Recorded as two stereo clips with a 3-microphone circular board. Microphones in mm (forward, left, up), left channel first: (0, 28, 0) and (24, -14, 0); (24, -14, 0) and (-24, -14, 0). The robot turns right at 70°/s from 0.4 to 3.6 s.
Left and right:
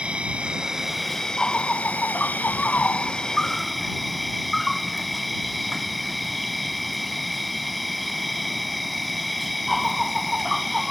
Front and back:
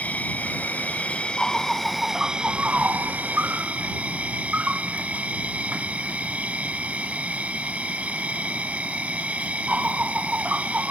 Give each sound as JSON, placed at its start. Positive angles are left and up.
{"t": 0.0, "sound": "an insect", "azimuth_deg": -15}